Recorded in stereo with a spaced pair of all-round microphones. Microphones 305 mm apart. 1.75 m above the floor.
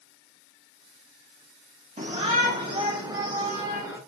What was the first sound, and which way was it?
A shout, 25° right (ahead or behind).